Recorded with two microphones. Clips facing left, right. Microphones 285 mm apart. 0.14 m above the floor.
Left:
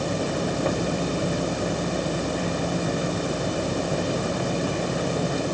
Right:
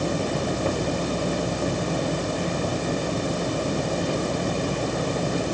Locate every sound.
Only background noise.